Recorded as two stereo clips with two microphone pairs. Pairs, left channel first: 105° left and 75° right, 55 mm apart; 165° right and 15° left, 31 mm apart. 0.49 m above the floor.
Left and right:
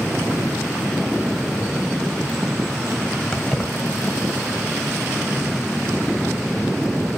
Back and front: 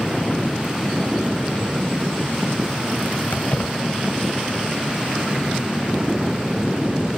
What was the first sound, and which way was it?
Keys jangling, 175° right.